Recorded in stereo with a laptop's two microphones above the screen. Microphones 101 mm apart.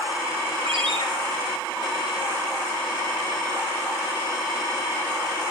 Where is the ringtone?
75° right (ahead or behind), 6 m.